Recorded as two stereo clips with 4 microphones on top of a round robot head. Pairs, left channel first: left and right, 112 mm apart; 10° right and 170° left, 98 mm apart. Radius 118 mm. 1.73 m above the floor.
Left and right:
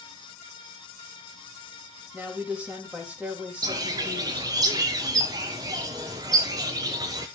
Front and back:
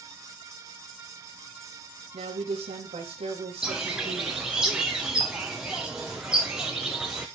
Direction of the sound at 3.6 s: 110° right.